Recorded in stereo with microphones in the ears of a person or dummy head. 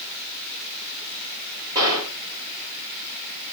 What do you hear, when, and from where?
1.8 s a gunshot: 25° right (ahead or behind), 2.5 m